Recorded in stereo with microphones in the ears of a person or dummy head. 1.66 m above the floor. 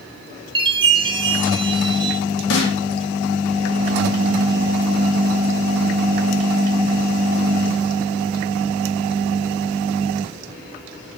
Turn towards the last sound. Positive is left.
turn(degrees=85)